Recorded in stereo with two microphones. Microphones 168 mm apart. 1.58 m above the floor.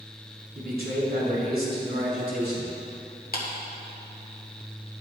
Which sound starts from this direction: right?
A man speaking, at 0.6 s.